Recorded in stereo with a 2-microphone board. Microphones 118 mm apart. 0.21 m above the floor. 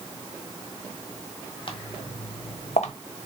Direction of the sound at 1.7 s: 45° left (ahead or behind).